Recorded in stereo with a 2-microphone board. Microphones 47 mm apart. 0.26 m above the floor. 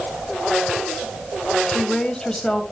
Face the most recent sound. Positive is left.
turn(degrees=15)  # may be behind; listen again after turning